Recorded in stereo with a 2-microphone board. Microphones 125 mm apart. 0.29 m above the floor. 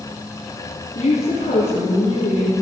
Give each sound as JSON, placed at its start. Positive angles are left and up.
{"t": 0.9, "sound": "a woman speaking", "side_deg": 65, "distance_m": 3.0}